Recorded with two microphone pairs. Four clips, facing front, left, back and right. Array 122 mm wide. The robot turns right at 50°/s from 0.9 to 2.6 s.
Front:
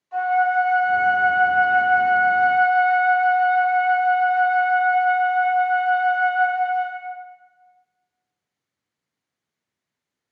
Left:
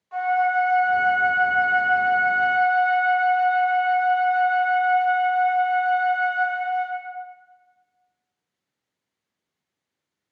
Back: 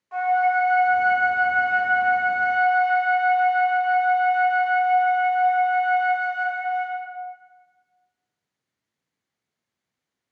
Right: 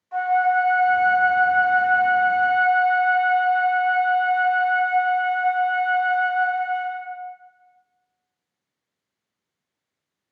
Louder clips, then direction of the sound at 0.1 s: Right 2 dB, front 1 dB; 165° left.